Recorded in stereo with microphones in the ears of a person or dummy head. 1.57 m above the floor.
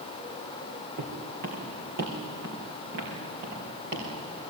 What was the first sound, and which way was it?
Footsteps, 55° right (ahead or behind).